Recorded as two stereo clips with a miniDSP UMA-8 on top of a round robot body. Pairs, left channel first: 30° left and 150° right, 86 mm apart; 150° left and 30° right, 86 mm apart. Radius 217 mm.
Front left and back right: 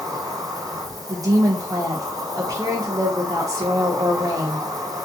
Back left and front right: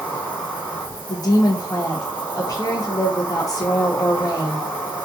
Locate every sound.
0.0 s an insect: 145° right, 2 m
1.1 s a woman speaking: 175° left, 0.9 m